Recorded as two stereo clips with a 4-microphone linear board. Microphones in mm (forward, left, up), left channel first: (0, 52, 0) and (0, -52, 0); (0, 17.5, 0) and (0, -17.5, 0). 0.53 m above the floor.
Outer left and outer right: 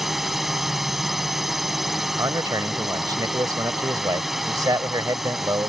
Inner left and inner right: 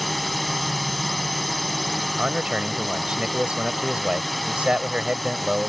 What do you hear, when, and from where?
0.0 s a drone: centre (ahead or behind)
2.2 s a man speaking: 35° right (ahead or behind)